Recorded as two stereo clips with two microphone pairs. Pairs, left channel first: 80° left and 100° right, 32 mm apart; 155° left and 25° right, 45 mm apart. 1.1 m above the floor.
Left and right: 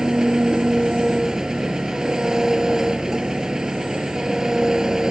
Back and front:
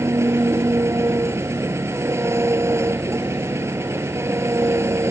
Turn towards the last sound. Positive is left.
turn(degrees=-30)